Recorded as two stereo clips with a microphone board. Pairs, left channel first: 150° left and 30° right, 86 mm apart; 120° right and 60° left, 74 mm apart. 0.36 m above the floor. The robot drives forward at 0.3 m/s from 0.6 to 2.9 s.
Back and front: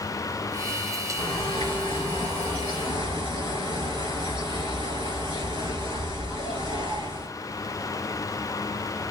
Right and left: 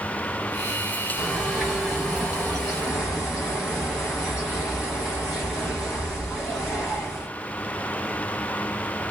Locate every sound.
1.2 s a bird: 145° left, 4 m; by 7.3 s 150° left, 4.5 m